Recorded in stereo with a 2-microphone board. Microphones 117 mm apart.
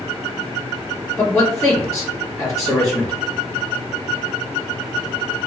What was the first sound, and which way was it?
A man speaking, 30° left (ahead or behind).